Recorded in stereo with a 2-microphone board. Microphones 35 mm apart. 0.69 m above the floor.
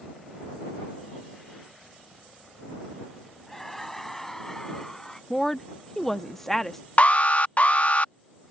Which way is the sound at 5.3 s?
10° left (ahead or behind).